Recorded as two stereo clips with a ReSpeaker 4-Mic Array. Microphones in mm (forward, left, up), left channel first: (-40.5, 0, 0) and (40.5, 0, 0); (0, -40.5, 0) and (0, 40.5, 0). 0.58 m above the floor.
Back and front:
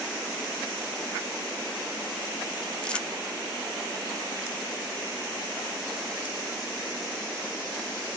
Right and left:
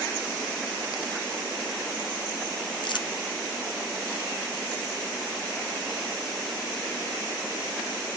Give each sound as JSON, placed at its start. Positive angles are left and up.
{"t": 2.8, "sound": "crumpling", "azimuth_deg": -105, "distance_m": 0.6}